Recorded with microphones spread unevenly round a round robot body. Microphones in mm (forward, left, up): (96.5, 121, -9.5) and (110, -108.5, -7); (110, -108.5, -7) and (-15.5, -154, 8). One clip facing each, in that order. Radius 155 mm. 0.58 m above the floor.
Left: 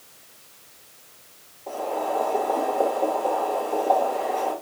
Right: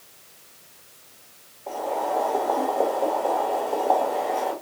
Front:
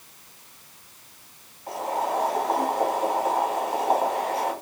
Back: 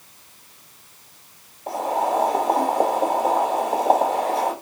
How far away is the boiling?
About 1.6 m.